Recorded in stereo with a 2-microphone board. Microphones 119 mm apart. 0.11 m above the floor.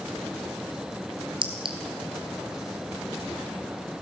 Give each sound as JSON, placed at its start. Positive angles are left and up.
{"t": 1.4, "sound": "a clink", "side_deg": -45, "distance_m": 1.3}